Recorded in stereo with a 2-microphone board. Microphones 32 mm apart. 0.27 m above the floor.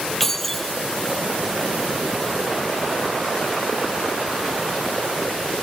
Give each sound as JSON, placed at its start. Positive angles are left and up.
{"t": 0.2, "sound": "keys jangling", "side_deg": 10}